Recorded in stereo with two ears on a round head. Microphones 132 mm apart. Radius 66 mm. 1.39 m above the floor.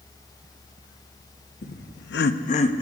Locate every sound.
1.6 s laughter: 60° left (ahead or behind), 0.8 m; by 2.8 s 30° left (ahead or behind), 0.7 m